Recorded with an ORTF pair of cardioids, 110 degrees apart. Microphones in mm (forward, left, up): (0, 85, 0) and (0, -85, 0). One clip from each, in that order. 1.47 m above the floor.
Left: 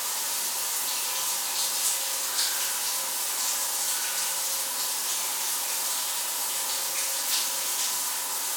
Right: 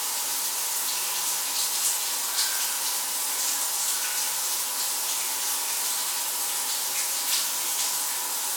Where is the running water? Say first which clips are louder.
Right 1 dB; 15° right, 0.8 m.